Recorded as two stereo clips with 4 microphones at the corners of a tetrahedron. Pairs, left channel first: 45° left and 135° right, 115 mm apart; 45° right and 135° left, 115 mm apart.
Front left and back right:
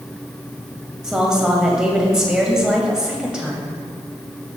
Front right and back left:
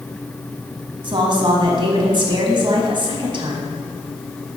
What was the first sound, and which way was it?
A woman speaking, 145° left.